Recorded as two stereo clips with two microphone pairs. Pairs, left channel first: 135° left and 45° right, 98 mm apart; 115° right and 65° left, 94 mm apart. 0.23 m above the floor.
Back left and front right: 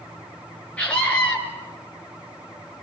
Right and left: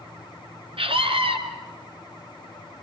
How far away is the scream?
About 3.5 m.